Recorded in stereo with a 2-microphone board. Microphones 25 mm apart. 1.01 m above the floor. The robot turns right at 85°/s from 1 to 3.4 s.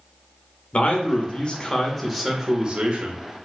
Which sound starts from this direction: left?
A man speaking, at 0.7 s.